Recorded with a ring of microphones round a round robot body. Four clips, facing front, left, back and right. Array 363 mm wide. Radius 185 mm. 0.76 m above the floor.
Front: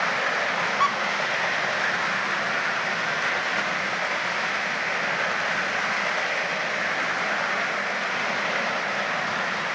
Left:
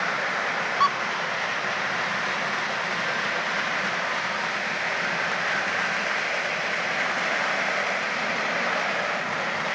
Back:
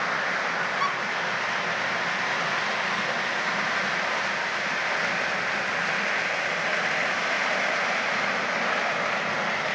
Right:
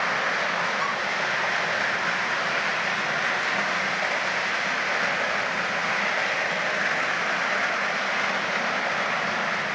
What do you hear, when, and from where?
0.8 s a squeak: 55° left, 1.4 m